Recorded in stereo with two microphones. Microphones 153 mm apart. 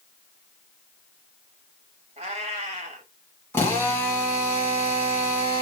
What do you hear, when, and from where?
2.2 s a cat meowing: 45° right (ahead or behind), 1.2 m
3.5 s a drill: 15° left (ahead or behind), 1.3 m